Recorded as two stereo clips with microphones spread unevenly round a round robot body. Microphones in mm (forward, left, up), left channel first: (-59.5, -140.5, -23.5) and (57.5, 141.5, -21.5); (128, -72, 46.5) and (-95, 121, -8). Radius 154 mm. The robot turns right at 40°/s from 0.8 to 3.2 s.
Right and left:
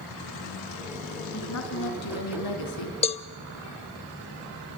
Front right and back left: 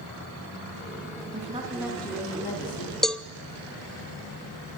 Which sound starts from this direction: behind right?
A cowbell, at 3.0 s.